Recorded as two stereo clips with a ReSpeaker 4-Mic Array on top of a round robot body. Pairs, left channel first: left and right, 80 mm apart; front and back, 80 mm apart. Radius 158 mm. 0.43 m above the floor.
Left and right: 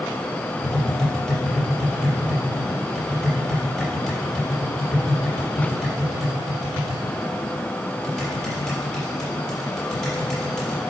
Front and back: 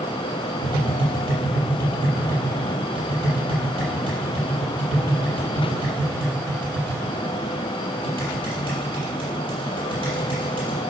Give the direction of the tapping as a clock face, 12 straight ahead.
6 o'clock.